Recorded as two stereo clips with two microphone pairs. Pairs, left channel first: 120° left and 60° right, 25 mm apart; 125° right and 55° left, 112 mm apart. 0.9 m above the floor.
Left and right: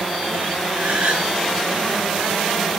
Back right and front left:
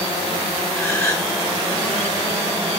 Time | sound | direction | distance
0.7 | a gasp | 55° right | 7 m